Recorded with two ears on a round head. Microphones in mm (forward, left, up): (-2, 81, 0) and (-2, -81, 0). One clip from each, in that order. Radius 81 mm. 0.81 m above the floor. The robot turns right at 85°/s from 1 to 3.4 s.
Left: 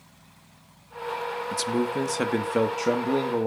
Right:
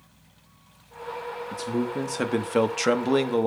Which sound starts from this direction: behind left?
A man speaking, at 1.5 s.